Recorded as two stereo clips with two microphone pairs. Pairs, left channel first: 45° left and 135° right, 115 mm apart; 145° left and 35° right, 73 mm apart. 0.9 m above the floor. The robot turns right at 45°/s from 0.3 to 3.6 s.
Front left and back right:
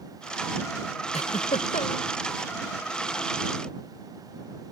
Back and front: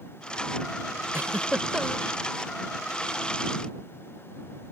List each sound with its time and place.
1.1 s a giggle: 25° left; by 2.1 s 65° left